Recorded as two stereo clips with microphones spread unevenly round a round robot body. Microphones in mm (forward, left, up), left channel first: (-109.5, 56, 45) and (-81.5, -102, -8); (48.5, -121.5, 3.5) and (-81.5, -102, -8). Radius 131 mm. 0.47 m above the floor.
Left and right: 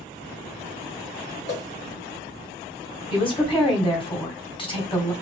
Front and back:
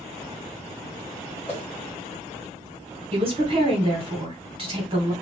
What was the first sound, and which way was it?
A whoosh, 75° left.